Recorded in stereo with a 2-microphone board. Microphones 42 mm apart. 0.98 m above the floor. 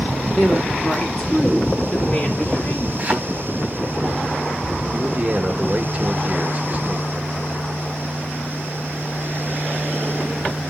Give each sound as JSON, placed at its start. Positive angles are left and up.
{"t": 0.4, "sound": "a woman speaking", "side_deg": -5, "distance_m": 2.0}
{"t": 3.0, "sound": "a thud", "side_deg": -30, "distance_m": 3.5}
{"t": 4.9, "sound": "a man speaking", "side_deg": -35, "distance_m": 1.2}